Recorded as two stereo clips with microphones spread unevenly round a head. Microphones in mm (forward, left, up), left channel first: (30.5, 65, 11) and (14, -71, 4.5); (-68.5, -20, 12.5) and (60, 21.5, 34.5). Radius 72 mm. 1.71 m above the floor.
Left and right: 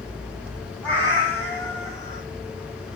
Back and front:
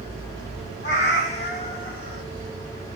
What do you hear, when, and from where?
0.8 s a cat meowing: 160° left, 2.5 m; by 2.2 s 140° left, 2 m